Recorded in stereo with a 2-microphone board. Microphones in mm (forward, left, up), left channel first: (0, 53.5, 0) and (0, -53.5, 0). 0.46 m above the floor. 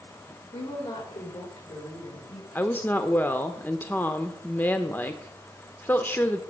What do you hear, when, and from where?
0.5 s a woman speaking: 75° left (ahead or behind), 8 m; by 2.5 s 60° left (ahead or behind), 7.5 m
2.5 s a woman speaking: 20° left (ahead or behind), 0.9 m